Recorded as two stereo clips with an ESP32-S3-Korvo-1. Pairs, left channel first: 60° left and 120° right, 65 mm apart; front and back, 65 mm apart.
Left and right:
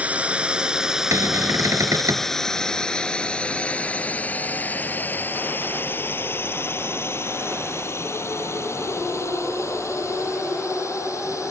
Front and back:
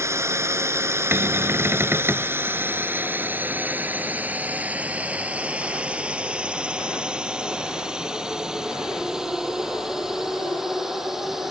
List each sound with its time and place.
0.0 s a drone: straight behind; by 11.5 s 95° left
1.1 s a cupboard door: 135° right